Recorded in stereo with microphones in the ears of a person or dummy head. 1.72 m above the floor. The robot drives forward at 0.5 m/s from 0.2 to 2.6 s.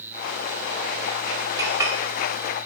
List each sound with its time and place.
1.6 s a clink: 15° right (ahead or behind), 1.8 m